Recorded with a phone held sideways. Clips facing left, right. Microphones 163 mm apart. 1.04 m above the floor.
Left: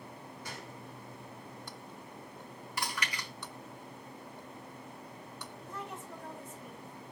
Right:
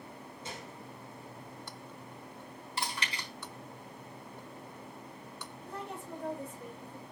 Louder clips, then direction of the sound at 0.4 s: Right 2 dB; 25° right (ahead or behind).